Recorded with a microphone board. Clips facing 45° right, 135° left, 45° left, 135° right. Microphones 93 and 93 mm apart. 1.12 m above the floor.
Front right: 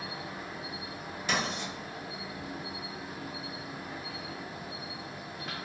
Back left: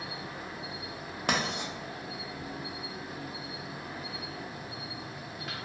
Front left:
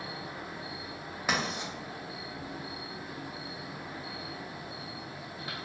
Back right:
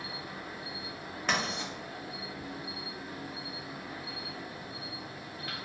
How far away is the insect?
About 0.8 m.